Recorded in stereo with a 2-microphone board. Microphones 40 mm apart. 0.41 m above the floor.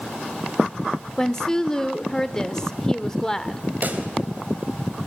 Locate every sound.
1.2 s a woman speaking: 15° left (ahead or behind), 0.9 m
3.8 s a pop: 50° right (ahead or behind), 2 m